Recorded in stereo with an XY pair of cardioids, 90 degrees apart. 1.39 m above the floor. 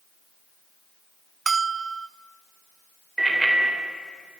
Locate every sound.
1.5 s a bell: 35° right, 0.5 m
3.2 s a bicycle bell: 20° right, 3.5 m